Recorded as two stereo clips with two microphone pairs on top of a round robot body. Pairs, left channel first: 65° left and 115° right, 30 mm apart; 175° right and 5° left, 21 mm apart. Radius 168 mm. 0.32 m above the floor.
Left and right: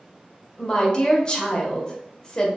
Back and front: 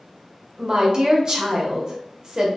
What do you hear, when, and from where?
0.6 s a woman speaking: 35° left, 1.0 m